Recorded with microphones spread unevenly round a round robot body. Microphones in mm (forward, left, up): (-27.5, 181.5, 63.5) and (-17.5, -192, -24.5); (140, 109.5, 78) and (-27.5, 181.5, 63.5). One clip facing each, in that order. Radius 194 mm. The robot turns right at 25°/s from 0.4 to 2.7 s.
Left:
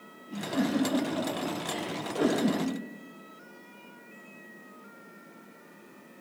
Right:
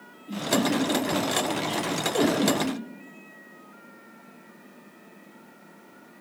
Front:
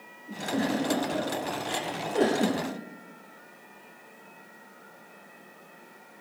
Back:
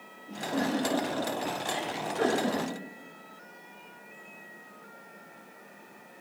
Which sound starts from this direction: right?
A giggle, at 0.3 s.